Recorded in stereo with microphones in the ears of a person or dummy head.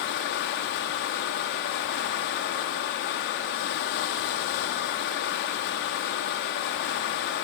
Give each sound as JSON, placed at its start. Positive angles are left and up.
{"t": 0.0, "sound": "running water", "side_deg": 60, "distance_m": 1.8}